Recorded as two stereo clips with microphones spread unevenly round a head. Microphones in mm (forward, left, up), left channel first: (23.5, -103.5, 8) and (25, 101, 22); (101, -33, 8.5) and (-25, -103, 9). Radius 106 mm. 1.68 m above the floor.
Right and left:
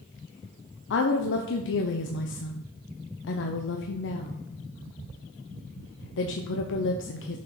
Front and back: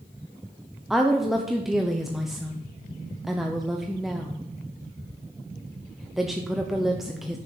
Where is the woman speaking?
60° right, 0.8 m.